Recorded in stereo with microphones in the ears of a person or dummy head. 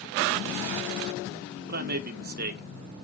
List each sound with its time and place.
1.7 s a man speaking: 50° right (ahead or behind), 1.0 m